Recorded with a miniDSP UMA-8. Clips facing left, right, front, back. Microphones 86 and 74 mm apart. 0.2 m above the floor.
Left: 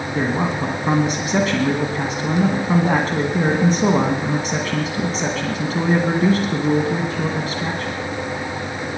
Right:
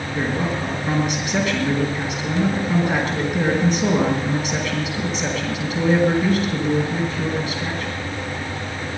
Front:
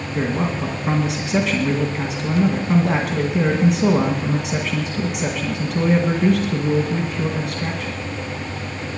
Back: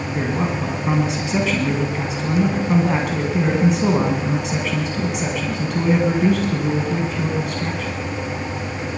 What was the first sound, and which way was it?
A man speaking, 90° left.